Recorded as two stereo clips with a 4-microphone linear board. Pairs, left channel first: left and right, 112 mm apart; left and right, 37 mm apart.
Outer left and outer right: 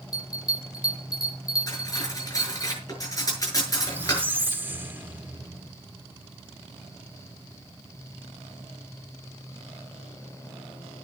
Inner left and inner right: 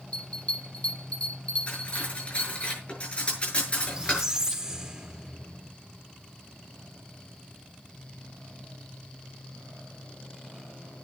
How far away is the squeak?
About 1.3 m.